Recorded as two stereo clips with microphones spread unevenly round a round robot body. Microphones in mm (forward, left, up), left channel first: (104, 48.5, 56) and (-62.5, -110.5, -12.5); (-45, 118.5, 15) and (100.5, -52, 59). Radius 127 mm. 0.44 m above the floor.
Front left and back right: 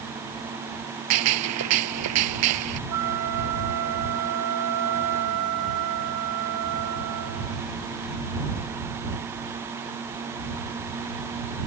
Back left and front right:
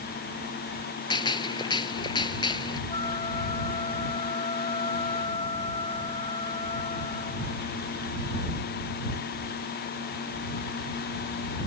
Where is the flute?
160° right.